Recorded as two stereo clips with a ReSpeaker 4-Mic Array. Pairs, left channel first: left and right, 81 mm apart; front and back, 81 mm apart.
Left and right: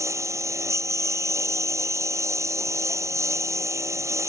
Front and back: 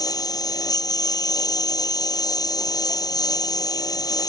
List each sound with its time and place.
0.0 s a lawn mower: 40° right